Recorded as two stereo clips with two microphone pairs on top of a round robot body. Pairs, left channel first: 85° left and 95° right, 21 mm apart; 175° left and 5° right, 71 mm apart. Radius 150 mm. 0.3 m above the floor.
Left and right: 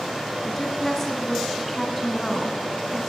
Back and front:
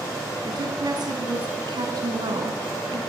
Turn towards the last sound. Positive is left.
turn(degrees=0)